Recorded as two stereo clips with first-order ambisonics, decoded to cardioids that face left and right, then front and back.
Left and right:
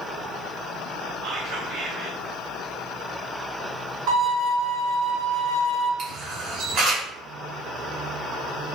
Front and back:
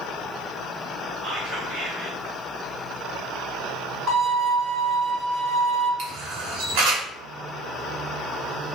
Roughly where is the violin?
Behind right.